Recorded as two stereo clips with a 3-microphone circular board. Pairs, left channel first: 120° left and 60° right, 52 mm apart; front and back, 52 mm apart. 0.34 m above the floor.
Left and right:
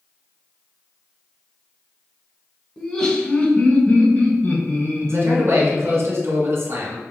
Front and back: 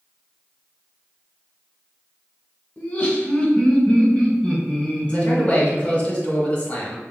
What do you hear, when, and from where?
2.8 s laughter: 50° left, 1.2 m; by 6.0 s 85° left, 3 m
5.1 s a man speaking: 65° right, 1.6 m